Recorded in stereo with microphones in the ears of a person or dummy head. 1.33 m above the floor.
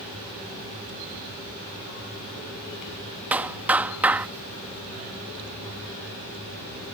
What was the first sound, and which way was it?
A clap, 15° right (ahead or behind).